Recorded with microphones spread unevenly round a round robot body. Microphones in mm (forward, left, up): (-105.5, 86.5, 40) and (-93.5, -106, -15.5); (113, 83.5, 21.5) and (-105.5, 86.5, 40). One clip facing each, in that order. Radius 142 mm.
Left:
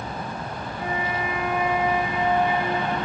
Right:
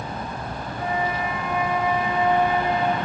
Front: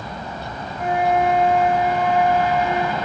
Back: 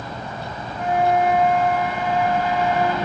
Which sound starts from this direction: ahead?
A flute, at 0.8 s.